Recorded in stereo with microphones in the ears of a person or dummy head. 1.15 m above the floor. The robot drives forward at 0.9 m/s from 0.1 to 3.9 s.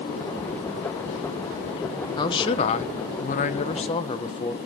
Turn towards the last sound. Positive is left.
turn(degrees=25)  # may be behind; listen again after turning